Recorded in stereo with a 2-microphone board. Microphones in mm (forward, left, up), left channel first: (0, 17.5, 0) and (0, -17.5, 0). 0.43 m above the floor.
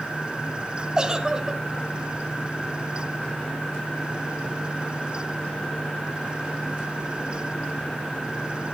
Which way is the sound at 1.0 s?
25° right (ahead or behind).